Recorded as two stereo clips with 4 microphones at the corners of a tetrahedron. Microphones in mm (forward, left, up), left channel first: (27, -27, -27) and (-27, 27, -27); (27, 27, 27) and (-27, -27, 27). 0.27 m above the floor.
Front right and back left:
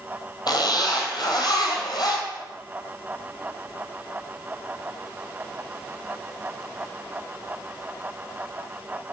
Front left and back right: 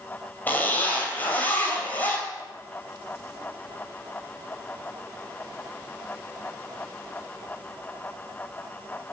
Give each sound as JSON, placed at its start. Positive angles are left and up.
{"t": 0.5, "sound": "a zipper", "azimuth_deg": -20, "distance_m": 2.5}